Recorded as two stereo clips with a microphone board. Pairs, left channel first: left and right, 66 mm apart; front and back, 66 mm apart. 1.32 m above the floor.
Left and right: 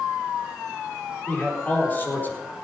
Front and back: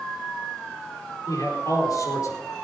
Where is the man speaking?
30° left, 4 m.